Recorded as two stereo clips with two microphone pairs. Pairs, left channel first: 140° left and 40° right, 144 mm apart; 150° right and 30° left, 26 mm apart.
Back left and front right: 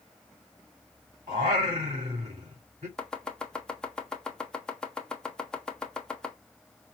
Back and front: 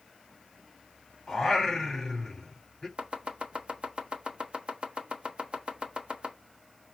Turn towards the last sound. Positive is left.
turn(degrees=60)